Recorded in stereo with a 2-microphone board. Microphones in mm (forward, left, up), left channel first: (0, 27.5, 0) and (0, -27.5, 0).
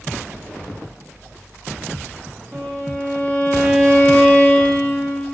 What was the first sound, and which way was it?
A violin, 20° left (ahead or behind).